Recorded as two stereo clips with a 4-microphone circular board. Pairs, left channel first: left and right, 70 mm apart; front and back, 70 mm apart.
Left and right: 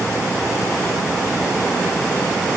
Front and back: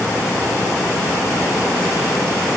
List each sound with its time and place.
Only background noise.